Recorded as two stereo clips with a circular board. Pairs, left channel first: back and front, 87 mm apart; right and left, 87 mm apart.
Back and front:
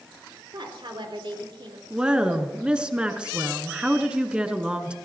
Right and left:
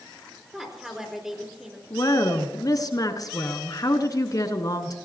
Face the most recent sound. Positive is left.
turn(degrees=-75)